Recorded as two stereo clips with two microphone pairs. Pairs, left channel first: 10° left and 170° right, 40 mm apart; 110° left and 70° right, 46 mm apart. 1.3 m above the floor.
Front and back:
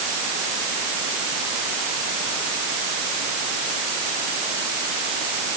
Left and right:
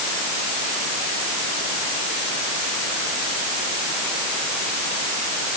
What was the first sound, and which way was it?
Only background noise.